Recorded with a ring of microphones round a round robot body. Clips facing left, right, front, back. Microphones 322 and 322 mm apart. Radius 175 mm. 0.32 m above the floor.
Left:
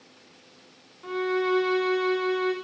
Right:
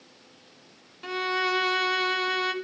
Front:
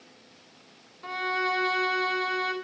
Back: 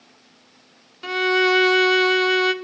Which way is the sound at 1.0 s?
140° right.